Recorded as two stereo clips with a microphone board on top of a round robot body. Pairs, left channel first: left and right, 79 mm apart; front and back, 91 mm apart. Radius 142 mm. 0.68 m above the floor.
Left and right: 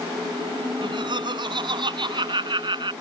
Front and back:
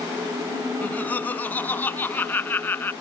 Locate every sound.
0.8 s laughter: 75° right; by 2.9 s 70° right